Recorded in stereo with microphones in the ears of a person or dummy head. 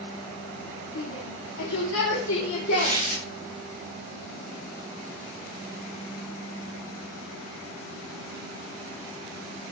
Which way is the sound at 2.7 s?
40° left (ahead or behind).